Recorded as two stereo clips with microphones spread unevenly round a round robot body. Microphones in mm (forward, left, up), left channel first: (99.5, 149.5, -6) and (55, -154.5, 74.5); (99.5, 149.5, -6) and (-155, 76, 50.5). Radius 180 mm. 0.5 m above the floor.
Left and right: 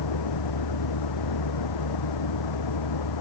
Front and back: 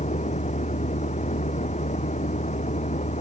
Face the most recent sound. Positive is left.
turn(degrees=80)